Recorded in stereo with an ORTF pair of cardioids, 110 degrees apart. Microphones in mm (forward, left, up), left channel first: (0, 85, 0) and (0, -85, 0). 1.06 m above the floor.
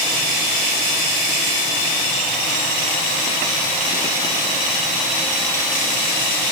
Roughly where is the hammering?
No hammering in this recording.